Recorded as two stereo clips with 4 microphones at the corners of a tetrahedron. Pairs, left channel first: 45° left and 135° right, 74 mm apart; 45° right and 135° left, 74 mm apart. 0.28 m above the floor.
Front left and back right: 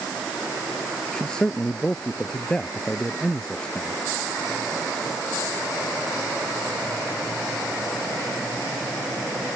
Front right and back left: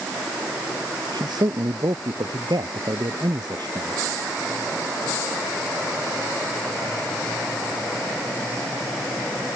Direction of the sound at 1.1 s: 125° left.